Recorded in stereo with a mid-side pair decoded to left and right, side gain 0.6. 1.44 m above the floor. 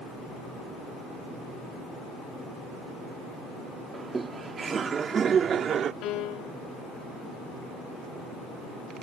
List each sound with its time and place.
3.9 s laughter: 25° right; by 5.9 s 45° right
6.0 s a piano: 70° left